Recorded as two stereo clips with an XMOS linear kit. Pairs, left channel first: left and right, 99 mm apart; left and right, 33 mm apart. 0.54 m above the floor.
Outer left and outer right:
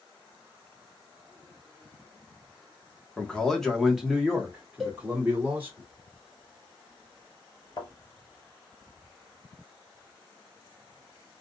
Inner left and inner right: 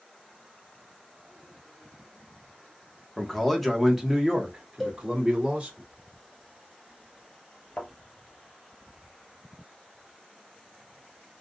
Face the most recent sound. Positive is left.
turn(degrees=45)  # may be behind; listen again after turning